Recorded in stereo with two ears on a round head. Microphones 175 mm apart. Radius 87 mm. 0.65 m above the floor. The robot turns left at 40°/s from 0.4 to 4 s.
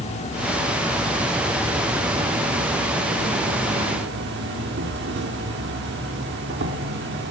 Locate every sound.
0.0 s an insect: 35° left, 1.2 m; by 7.3 s 105° right, 1.2 m